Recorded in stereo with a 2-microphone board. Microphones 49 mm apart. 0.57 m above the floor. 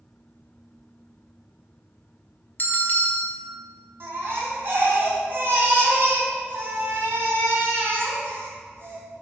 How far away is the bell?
About 1.4 m.